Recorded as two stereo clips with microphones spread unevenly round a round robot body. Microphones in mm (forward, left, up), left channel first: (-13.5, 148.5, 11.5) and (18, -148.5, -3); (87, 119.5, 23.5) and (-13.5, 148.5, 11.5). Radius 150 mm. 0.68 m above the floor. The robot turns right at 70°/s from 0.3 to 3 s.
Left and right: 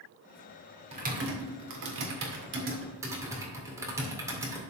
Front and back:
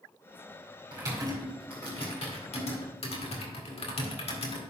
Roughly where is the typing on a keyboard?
Behind right.